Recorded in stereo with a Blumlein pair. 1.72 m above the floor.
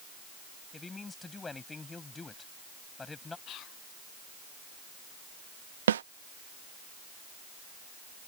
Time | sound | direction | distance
0.7 | a man speaking | 10° left | ?
3.5 | whispering | 35° left | ?
5.9 | a snare drum | 65° right | ?